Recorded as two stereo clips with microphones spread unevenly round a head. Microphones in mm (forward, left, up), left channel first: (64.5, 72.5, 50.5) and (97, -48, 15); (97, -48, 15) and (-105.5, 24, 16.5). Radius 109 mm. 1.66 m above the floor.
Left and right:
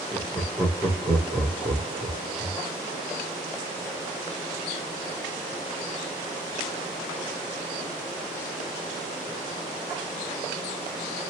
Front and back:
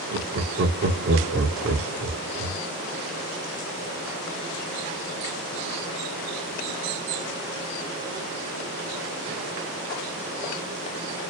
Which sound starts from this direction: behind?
Laughter, at 0.1 s.